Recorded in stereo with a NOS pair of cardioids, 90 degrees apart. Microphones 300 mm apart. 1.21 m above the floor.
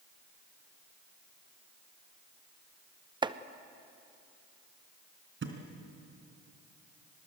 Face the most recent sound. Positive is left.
turn(degrees=-45)